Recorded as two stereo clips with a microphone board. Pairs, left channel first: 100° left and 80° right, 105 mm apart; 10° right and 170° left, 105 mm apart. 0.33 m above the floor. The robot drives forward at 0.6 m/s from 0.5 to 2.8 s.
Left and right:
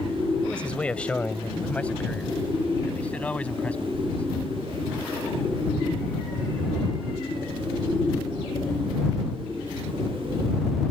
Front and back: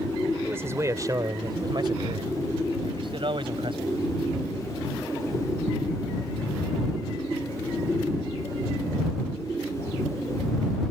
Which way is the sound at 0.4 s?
160° left.